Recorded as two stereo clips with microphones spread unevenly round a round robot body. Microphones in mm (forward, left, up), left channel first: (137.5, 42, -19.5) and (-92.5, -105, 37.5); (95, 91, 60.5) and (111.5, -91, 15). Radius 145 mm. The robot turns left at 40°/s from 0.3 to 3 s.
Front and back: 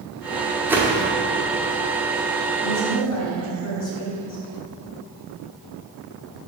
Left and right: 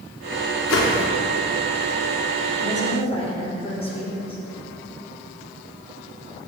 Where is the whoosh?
135° left, 0.7 m; by 1.1 s 120° left, 0.7 m.